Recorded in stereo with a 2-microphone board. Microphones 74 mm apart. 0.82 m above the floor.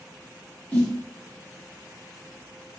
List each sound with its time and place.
0.7 s a snare drum: 20° left (ahead or behind), 1.3 m